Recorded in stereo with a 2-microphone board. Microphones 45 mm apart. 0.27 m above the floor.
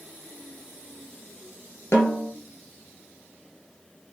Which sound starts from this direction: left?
A snare drum, at 1.9 s.